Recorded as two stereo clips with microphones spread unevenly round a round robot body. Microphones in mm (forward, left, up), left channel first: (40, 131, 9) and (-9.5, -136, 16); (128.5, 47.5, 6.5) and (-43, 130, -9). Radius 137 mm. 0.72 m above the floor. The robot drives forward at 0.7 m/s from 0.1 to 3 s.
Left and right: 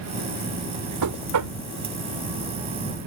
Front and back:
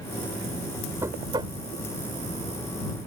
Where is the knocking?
125° right; by 1.6 s 135° right.